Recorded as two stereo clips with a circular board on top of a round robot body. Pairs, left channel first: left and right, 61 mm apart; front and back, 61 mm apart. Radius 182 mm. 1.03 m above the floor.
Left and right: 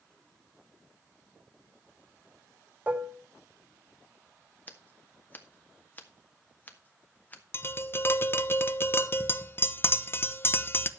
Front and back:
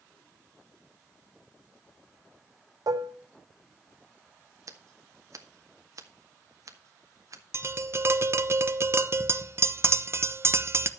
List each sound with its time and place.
2.9 s dishes clattering: 160° right, 0.7 m
4.7 s scissors: 150° left, 2 m
7.5 s tapping: 140° left, 1.2 m